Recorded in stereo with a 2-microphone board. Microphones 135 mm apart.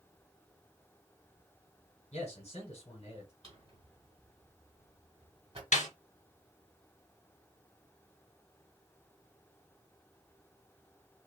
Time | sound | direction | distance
2.1 | a man speaking | 60° left (ahead or behind) | 1.7 m
3.4 | a drawer | 45° right (ahead or behind) | 1.4 m
5.7 | a snare drum | 75° left (ahead or behind) | 1.4 m